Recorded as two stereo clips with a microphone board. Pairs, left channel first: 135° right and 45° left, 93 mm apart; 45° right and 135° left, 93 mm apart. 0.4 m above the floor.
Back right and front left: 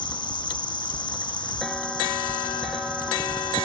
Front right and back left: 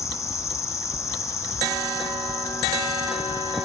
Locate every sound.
0.0 s an insect: 100° right, 0.9 m